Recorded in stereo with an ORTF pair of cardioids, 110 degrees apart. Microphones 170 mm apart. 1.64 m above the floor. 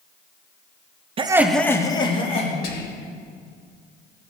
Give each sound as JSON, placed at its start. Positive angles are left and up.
{"t": 1.2, "sound": "laughter", "azimuth_deg": -35, "distance_m": 0.7}
{"t": 2.6, "sound": "whispering", "azimuth_deg": 65, "distance_m": 1.8}